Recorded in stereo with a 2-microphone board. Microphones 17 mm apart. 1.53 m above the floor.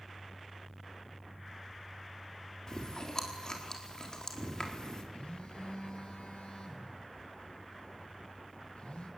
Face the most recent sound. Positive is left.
turn(degrees=80)